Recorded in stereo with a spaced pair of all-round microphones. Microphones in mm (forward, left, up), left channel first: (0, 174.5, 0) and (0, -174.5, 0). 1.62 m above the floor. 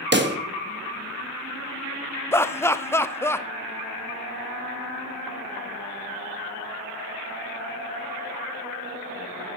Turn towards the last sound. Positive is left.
turn(degrees=5)  # may be behind; listen again after turning